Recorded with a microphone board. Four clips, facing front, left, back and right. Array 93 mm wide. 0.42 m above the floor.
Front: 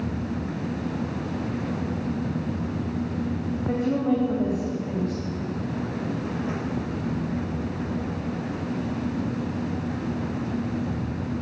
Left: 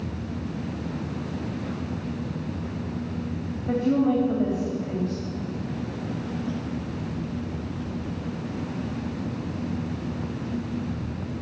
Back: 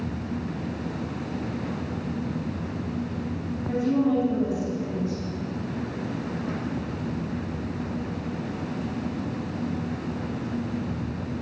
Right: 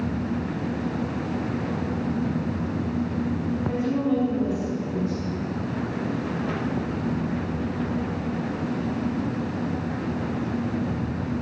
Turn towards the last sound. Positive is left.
turn(degrees=45)